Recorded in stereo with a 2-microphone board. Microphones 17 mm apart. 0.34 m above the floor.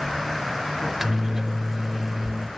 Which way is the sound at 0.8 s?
25° right (ahead or behind).